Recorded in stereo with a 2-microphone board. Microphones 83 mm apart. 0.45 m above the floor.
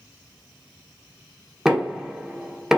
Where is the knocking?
5° right (ahead or behind), 0.9 m.